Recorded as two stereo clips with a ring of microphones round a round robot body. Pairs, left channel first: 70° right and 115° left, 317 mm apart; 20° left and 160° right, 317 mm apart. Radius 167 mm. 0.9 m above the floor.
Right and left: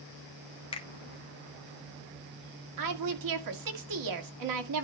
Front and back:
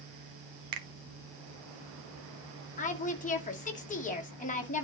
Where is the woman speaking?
90° left, 1.9 m.